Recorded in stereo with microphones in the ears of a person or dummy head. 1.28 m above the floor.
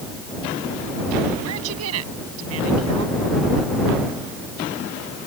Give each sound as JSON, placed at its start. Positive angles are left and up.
{"t": 1.4, "sound": "a woman speaking", "side_deg": -80}